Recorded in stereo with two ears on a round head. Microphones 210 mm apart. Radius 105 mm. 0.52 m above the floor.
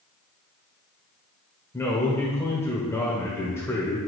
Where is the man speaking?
10° left (ahead or behind), 1.5 m.